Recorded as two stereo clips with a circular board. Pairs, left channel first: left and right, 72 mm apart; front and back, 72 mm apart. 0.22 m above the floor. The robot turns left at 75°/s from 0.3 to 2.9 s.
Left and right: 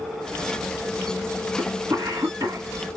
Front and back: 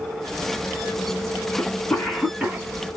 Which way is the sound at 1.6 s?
40° right.